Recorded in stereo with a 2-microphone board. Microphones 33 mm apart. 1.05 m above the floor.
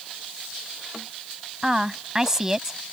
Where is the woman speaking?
15° right (ahead or behind).